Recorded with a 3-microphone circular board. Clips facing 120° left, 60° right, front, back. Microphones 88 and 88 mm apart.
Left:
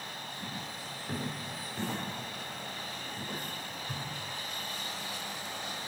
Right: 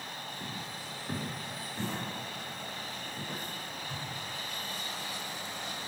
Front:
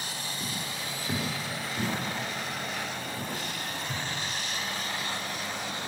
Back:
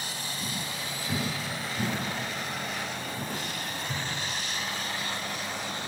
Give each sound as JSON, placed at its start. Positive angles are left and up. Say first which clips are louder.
{"t": 0.4, "sound": "footsteps", "louder": "even, back 1 dB", "azimuth_deg": 20, "distance_m": 3.5}